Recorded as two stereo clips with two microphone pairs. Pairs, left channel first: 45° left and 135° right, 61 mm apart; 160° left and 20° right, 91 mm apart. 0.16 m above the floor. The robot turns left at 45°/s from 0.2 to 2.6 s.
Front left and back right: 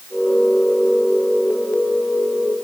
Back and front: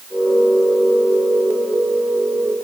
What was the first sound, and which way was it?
Only background noise.